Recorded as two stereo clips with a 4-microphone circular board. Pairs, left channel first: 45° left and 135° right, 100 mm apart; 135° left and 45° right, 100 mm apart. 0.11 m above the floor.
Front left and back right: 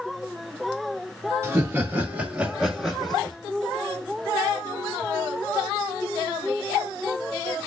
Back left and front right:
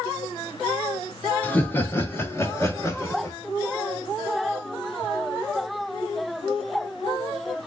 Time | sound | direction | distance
1.4 | laughter | 165° right | 1.5 m